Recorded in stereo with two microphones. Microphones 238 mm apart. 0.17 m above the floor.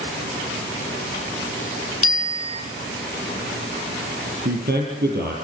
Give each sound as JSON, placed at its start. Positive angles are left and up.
{"t": 2.0, "sound": "a bicycle bell", "side_deg": -45, "distance_m": 4.0}
{"t": 4.5, "sound": "a man speaking", "side_deg": -40, "distance_m": 5.0}